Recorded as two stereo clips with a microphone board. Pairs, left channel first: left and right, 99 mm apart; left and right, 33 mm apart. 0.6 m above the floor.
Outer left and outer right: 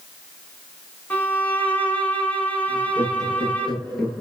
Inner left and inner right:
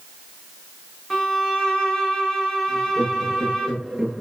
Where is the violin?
15° left (ahead or behind), 4 m.